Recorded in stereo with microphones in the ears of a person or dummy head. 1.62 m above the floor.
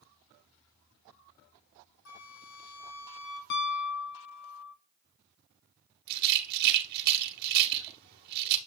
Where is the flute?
85° left, 3.5 m.